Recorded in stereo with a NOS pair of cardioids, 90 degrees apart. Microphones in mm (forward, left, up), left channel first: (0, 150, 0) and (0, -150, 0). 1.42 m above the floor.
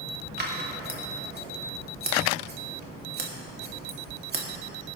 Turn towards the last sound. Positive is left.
turn(degrees=-35)